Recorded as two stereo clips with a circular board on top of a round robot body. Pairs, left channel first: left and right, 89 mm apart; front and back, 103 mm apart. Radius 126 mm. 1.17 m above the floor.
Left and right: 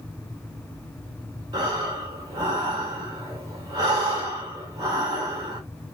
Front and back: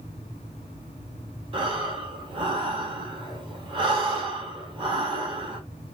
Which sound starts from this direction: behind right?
Breathing, at 1.5 s.